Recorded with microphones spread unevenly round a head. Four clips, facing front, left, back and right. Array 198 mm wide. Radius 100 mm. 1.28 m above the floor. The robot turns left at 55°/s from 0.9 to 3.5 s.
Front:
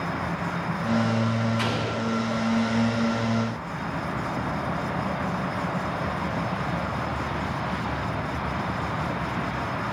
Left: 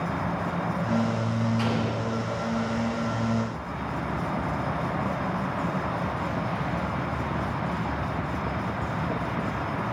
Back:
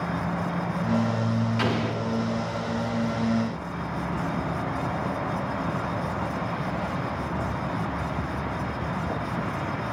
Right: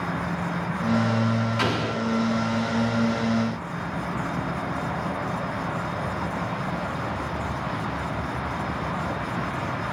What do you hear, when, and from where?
1.6 s an explosion: 115° right, 1.3 m; by 2.0 s 135° right, 1.3 m